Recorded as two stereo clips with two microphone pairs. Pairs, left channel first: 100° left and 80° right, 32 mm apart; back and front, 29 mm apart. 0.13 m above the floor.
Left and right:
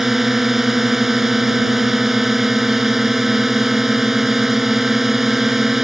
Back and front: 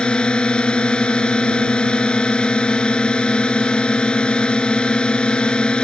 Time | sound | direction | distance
0.0 | a drone | 155° right | ?